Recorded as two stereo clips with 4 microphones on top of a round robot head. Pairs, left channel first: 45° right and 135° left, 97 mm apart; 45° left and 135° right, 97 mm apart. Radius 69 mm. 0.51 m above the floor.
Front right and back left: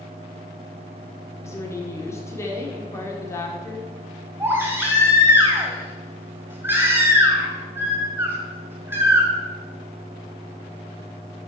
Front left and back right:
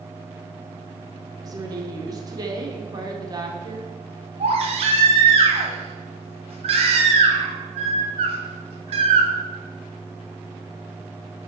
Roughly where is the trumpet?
I don't hear a trumpet.